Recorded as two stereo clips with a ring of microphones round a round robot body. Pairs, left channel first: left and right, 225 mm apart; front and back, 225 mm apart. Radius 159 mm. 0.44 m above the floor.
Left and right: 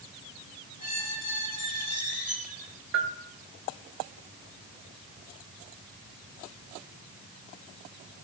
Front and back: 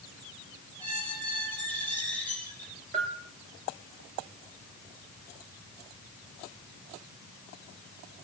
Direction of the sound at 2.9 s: 110° right.